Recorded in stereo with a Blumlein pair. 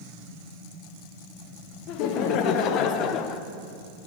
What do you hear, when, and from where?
1.9 s laughter: 40° left, 1.6 m; by 3.4 s 30° left, 0.7 m